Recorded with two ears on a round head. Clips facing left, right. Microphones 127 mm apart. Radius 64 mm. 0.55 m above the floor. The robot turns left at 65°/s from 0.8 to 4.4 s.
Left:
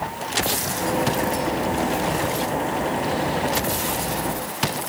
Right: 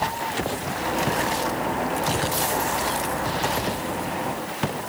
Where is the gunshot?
I don't hear a gunshot.